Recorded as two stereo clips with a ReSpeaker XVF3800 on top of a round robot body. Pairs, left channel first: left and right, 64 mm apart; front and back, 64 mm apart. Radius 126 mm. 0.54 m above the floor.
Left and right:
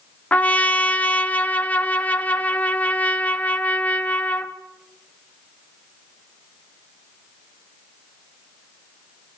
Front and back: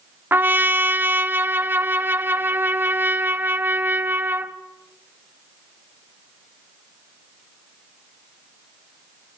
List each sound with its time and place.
0.3 s a trumpet: 145° left, 1.5 m